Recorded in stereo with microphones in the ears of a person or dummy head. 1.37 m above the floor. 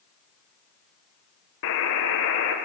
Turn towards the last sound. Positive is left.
turn(degrees=70)  # may be behind; listen again after turning